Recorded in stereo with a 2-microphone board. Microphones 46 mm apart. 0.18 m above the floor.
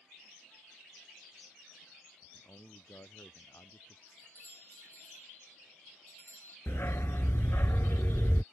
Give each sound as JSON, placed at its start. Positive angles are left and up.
{"t": 2.2, "sound": "a man speaking", "side_deg": 70}
{"t": 4.1, "sound": "a doorbell", "side_deg": 50}
{"t": 6.7, "sound": "a dog barking", "side_deg": 65}